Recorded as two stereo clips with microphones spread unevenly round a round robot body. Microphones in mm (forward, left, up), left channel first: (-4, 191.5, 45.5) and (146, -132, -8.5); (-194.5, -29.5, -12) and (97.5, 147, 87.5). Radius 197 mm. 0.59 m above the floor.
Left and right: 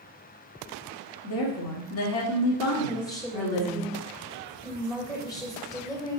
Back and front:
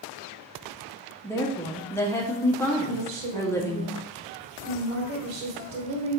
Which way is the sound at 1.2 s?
155° left.